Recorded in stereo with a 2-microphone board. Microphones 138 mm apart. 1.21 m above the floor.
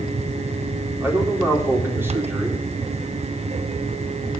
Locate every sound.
1.0 s a man speaking: 15° right (ahead or behind), 4 m